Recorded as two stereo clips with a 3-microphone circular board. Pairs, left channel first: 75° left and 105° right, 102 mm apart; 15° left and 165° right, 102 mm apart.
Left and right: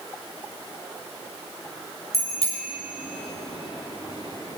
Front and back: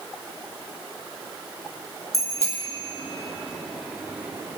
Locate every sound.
2.1 s a bicycle bell: 70° left, 4 m; by 4.6 s 130° left, 2 m